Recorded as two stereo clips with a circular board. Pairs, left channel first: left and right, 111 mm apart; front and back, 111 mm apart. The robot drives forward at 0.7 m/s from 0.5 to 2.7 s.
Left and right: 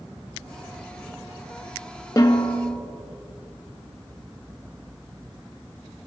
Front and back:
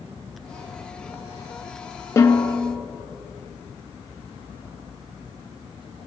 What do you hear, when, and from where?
2.2 s a snare drum: 50° left, 1.3 m; by 2.6 s 65° left, 1.1 m